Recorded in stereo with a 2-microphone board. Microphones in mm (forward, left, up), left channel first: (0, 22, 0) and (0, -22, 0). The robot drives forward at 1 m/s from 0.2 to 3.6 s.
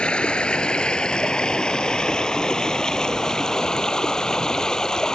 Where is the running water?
20° left (ahead or behind); by 5.2 s 15° left (ahead or behind).